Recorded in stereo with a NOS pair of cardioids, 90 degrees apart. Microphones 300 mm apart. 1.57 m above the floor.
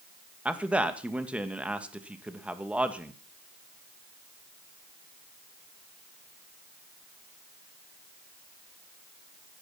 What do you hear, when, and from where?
0.5 s a man speaking: 5° right, 2.5 m